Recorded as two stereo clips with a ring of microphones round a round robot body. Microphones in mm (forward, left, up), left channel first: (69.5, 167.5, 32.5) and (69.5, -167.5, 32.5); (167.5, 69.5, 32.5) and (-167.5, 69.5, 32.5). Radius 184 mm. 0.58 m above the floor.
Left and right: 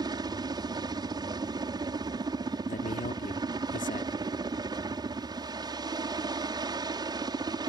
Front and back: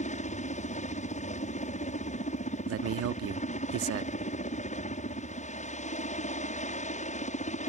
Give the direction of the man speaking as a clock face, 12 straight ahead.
7 o'clock.